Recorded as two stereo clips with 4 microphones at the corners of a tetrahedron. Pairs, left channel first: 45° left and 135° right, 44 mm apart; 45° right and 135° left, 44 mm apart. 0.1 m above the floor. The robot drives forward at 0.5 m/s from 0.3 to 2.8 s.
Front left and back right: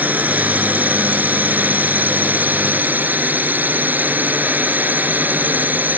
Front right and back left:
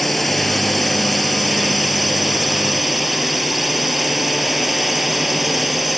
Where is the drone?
135° right; by 6.0 s 140° right.